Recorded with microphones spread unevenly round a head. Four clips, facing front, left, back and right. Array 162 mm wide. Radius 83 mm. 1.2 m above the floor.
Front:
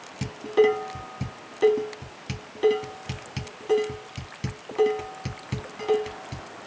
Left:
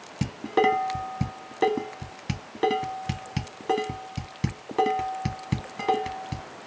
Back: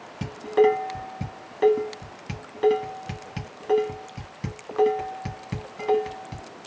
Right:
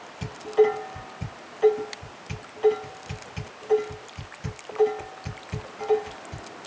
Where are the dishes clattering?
95° left, 1.4 m.